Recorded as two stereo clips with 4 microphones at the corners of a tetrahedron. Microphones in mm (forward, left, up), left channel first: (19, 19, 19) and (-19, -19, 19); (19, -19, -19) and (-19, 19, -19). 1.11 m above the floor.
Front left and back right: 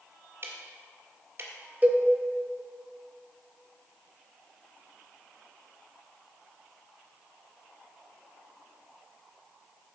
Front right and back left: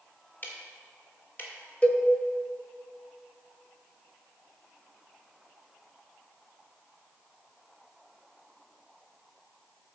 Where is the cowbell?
100° right, 0.9 m.